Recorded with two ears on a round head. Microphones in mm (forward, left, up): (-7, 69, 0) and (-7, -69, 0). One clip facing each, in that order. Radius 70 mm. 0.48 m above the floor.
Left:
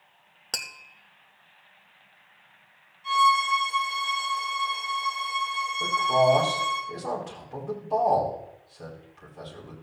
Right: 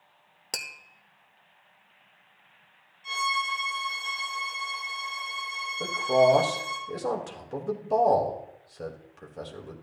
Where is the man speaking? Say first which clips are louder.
Right 1 dB; 55° right (ahead or behind), 2 m.